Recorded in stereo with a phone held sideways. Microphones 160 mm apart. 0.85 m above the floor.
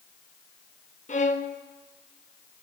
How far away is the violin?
About 0.8 m.